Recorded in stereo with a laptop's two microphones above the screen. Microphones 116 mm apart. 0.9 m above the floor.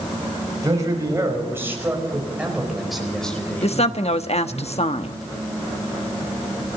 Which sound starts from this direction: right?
A man speaking, at 0.6 s.